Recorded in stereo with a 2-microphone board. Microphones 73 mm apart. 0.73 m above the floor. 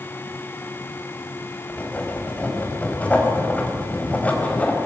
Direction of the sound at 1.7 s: 20° left (ahead or behind).